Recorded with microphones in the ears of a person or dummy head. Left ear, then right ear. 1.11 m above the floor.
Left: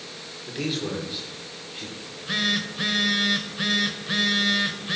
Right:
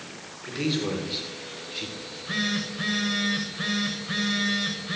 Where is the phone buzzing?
20° left (ahead or behind), 1.2 m.